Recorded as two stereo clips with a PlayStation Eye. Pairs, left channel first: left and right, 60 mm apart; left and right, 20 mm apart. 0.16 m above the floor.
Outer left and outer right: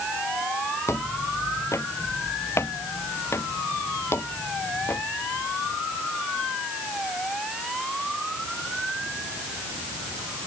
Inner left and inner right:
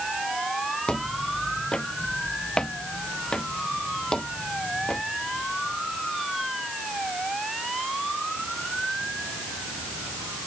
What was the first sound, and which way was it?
Footsteps, 50° left (ahead or behind).